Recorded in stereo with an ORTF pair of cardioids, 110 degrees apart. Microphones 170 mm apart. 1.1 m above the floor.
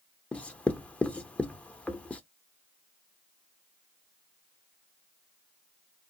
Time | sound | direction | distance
0.3 | writing | 5° left | 0.5 m